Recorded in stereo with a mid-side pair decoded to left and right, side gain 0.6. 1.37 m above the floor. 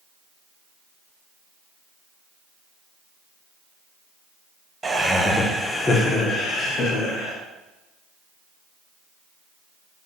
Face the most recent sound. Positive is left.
turn(degrees=55)